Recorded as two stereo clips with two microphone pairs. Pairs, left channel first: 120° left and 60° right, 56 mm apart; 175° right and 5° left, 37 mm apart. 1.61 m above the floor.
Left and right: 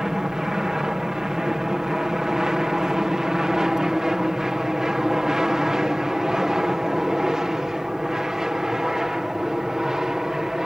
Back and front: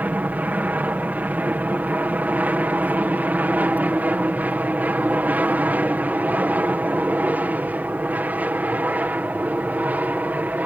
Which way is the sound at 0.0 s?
20° left.